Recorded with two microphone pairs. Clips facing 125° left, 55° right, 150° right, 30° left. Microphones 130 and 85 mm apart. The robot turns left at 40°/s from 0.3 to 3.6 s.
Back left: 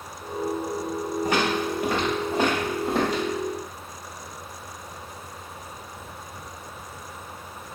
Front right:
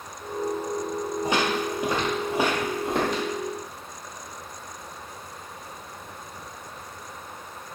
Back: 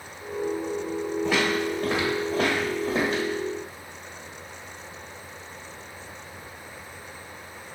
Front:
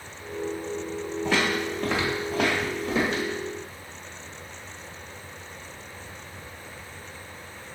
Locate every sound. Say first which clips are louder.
1.2 s footsteps: back left 1 dB, even; 75° right, 1.5 m; by 3.2 s 160° right, 2 m